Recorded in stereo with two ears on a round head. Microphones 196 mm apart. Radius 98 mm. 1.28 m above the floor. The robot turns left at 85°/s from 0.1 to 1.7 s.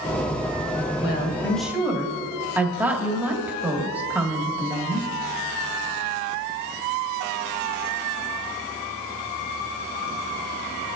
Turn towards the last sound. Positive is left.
turn(degrees=-10)